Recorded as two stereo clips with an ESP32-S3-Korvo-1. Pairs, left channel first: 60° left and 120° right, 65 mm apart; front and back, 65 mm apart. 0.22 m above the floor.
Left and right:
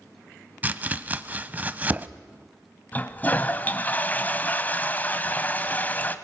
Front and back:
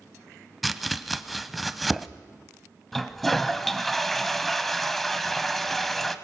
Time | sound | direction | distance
0.6 | chopping | 90° right | 0.7 m
2.9 | a toilet flushing | 85° left | 0.9 m